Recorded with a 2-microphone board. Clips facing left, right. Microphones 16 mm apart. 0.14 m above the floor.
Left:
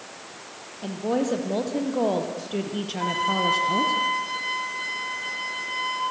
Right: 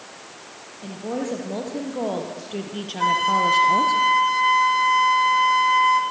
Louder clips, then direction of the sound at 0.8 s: Left 3 dB; 20° left (ahead or behind).